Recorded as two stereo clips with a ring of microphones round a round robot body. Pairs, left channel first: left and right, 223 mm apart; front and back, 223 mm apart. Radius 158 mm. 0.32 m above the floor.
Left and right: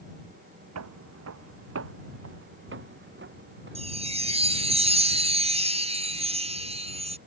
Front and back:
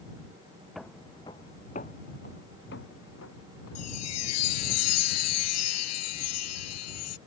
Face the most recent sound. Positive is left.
turn(degrees=-25)